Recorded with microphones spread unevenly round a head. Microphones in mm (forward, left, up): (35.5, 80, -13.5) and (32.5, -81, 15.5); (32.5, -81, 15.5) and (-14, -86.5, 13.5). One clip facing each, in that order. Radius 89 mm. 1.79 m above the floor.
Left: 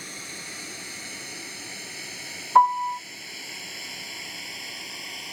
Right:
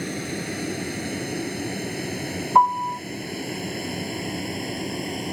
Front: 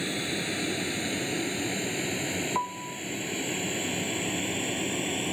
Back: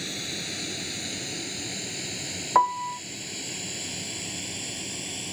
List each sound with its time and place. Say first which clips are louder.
0.0 s a vehicle: right 15 dB, front 4 dB; 60° right; by 5.3 s 50° right
2.5 s a piano: even, back 9 dB; 170° right